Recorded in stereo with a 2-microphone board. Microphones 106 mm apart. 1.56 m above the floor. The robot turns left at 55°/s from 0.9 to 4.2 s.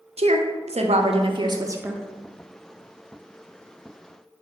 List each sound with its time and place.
0.2 s a woman speaking: 105° right, 0.5 m; by 2.0 s 165° right, 0.5 m